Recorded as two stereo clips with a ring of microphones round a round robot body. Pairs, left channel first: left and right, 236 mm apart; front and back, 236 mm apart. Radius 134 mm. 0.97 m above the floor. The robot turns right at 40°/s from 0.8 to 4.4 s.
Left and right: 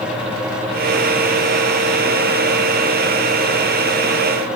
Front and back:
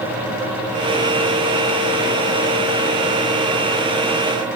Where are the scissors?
I don't hear scissors.